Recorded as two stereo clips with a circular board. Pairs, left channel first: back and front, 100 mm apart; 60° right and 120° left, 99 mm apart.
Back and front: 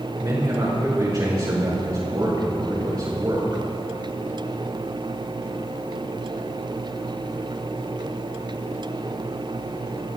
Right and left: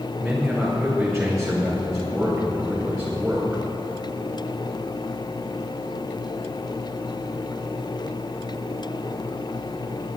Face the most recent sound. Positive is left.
turn(degrees=35)